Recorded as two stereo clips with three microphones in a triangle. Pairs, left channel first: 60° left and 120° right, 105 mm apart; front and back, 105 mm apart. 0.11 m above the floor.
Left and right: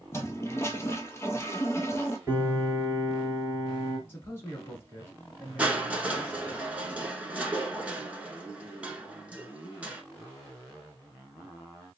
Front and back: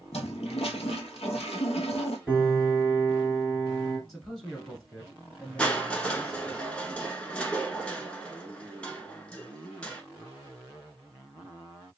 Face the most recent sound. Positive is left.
turn(degrees=-65)